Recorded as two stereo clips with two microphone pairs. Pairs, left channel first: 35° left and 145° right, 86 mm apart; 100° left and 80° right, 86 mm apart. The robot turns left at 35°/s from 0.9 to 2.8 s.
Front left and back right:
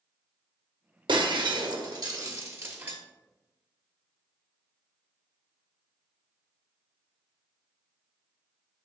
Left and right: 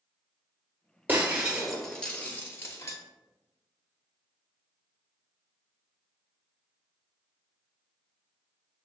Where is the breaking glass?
145° right, 0.8 m; by 3.0 s 155° left, 0.8 m.